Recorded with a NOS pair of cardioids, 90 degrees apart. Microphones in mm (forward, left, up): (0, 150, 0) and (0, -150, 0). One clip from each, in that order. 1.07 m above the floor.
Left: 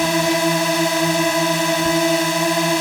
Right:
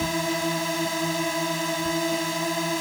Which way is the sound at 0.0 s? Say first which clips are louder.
Left 8 dB; 60° left.